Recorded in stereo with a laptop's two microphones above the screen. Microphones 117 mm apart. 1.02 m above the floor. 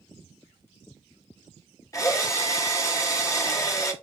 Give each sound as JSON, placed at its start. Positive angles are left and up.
{"t": 1.9, "sound": "a drill", "side_deg": 25, "distance_m": 0.7}